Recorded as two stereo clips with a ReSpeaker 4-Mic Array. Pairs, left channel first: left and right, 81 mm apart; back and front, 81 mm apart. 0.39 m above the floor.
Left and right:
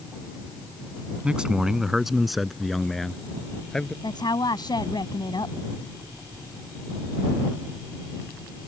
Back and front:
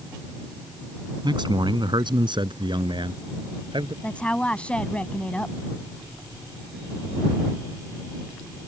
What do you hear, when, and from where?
1.2 s a man speaking: 15° right; by 3.9 s 10° left
4.0 s a woman speaking: 105° left